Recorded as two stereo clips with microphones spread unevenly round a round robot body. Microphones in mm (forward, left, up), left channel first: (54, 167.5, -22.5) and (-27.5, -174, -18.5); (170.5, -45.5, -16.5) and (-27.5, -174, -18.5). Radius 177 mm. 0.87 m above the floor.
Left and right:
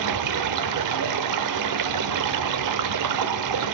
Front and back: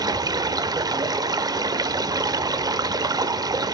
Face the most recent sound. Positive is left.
turn(degrees=-75)